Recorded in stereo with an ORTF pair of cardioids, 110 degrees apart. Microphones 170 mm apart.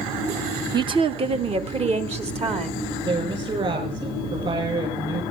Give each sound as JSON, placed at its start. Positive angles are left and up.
{"t": 0.7, "sound": "a woman speaking", "azimuth_deg": -25, "distance_m": 0.6}
{"t": 3.0, "sound": "a woman speaking", "azimuth_deg": -35, "distance_m": 6.0}